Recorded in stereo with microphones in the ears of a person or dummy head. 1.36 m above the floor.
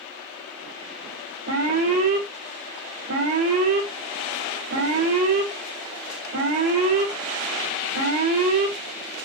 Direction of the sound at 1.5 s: 80° right.